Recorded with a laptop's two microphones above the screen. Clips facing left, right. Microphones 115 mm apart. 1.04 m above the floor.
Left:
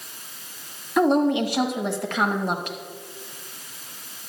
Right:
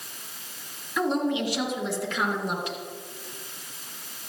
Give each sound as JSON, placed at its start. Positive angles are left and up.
{"t": 1.0, "sound": "a woman speaking", "side_deg": 55, "distance_m": 1.6}